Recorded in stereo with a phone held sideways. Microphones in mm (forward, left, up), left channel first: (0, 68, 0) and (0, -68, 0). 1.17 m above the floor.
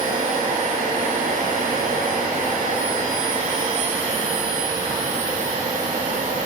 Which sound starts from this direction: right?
A machine running, at 0.0 s.